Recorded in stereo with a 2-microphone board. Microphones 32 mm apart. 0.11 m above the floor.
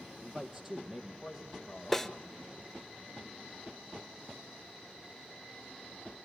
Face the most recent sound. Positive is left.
turn(degrees=5)  # may be behind; listen again after turning